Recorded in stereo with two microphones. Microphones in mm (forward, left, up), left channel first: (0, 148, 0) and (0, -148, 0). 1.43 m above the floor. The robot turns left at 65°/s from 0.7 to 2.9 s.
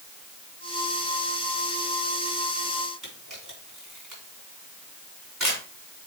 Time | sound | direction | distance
3.0 | a camera shutter | 70° right (ahead or behind) | 4 m